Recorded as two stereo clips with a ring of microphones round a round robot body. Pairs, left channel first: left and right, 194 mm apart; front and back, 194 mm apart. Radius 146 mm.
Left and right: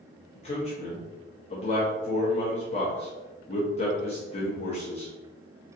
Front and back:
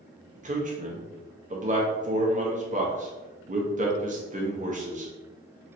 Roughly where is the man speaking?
Behind left.